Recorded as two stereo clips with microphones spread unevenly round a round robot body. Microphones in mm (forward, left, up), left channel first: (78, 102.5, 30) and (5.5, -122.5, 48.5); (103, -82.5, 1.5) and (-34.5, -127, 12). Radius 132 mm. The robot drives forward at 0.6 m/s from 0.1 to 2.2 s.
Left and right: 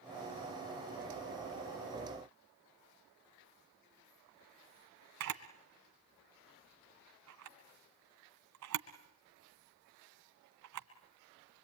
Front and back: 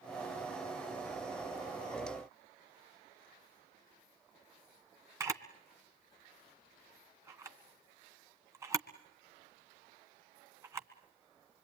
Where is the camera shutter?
90° right, 2 m.